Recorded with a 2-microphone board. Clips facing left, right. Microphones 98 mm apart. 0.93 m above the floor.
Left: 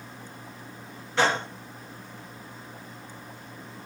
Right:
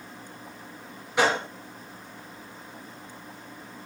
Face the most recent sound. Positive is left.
turn(degrees=-15)  # may be behind; listen again after turning